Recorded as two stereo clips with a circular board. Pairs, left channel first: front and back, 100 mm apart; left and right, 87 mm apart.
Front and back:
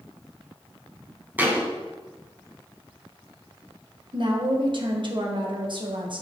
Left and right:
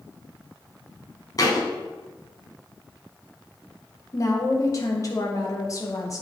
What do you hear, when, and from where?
1.4 s a thud: 115° left, 2 m
4.1 s a woman speaking: 140° left, 1.6 m